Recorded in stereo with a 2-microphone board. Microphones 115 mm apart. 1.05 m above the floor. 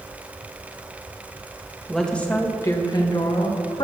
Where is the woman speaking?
Centre (ahead or behind), 1.4 m; by 3.8 s 50° left (ahead or behind), 2 m.